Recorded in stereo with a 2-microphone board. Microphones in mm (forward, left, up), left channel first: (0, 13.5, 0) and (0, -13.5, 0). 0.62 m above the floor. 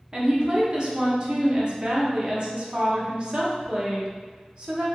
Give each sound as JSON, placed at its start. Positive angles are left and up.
{"t": 0.1, "sound": "a woman speaking", "side_deg": -35, "distance_m": 0.8}